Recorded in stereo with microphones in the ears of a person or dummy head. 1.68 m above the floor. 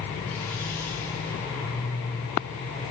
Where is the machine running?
10° left (ahead or behind), 0.8 m.